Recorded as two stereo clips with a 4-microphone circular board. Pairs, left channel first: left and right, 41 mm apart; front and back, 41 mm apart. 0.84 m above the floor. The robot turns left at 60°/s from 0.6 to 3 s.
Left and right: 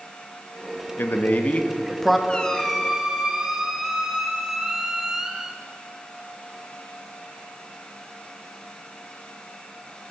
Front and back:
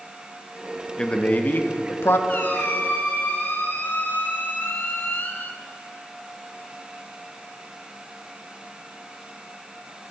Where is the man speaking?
70° left, 0.7 m; by 2.2 s 5° right, 0.7 m.